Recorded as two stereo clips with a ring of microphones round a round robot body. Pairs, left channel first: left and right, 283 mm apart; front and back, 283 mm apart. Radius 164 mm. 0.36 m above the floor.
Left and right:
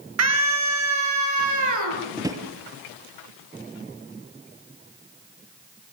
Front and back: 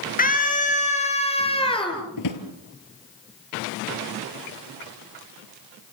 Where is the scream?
60° right, 9 m; by 2.0 s 75° right, 9.5 m.